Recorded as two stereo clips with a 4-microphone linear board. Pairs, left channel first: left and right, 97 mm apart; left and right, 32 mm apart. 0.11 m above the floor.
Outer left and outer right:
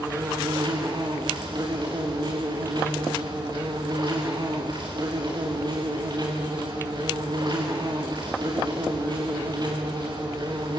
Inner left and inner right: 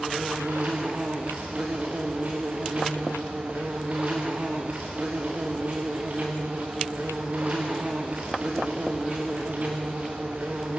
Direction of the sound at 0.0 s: 50° right (ahead or behind).